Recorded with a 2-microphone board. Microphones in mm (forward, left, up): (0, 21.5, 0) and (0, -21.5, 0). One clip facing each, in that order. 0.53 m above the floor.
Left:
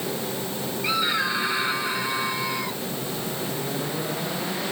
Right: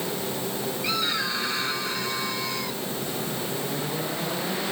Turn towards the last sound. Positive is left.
turn(degrees=15)  # may be behind; listen again after turning